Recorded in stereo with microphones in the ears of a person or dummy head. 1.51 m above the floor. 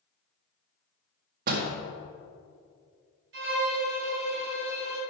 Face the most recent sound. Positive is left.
turn(degrees=-60)  # may be behind; listen again after turning